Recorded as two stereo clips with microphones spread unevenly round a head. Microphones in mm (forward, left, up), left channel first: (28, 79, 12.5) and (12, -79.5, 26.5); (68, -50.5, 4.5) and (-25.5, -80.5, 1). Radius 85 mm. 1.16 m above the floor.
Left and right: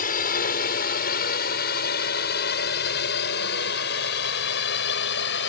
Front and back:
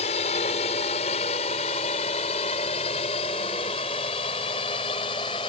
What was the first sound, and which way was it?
A drone, 55° left.